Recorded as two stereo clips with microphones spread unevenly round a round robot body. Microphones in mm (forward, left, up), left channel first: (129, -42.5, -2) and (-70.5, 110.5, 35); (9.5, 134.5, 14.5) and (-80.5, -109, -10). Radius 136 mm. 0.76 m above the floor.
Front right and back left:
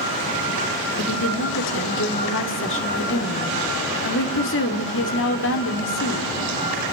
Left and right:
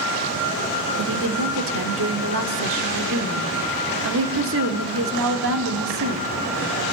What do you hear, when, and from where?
1.0 s a woman speaking: 75° right, 2.5 m